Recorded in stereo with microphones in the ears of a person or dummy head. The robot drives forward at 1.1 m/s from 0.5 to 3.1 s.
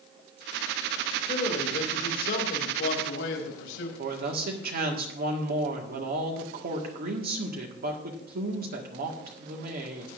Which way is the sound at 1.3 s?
40° left (ahead or behind).